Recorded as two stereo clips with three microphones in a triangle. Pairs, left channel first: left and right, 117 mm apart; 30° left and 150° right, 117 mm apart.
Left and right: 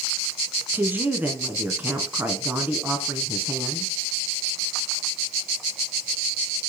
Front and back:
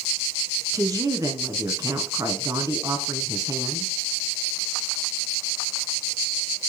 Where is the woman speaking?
145° right, 1.2 m.